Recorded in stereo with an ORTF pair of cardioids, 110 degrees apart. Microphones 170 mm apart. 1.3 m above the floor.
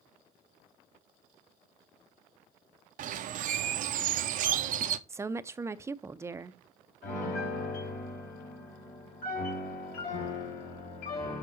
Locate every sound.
3.0 s a bird: 55° right, 0.6 m
5.1 s a woman speaking: 15° right, 0.5 m
7.0 s a piano: 65° left, 3 m